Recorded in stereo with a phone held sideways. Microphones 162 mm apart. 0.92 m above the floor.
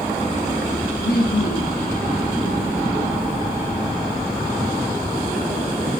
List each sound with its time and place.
1.0 s laughter: 75° left (ahead or behind), 7.5 m